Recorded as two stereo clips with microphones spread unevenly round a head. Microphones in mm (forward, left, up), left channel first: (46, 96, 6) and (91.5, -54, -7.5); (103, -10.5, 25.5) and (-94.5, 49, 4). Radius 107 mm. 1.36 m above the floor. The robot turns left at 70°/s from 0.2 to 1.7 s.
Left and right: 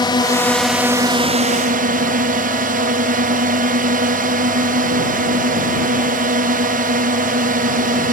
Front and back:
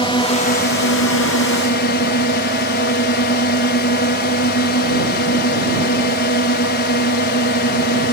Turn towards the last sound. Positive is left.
turn(degrees=-55)